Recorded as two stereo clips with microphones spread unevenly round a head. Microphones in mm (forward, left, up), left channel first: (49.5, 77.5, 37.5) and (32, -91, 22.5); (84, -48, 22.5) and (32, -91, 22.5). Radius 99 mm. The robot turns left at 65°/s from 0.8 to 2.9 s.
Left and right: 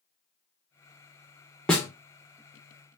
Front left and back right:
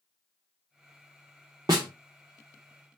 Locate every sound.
1.7 s a snare drum: 170° left, 0.5 m; by 1.9 s 155° left, 0.5 m